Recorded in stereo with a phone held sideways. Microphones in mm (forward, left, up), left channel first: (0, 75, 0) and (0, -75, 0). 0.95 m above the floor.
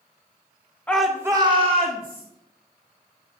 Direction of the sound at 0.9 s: 10° left (ahead or behind).